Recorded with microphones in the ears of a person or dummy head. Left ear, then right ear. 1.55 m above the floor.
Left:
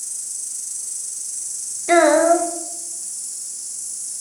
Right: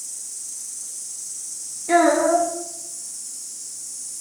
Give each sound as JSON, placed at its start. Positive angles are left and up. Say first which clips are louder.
{"t": 0.0, "sound": "an insect", "louder": "left 4 dB", "side_deg": 80, "distance_m": 4.0}
{"t": 1.9, "sound": "a child speaking", "louder": "left 3 dB", "side_deg": 70, "distance_m": 1.4}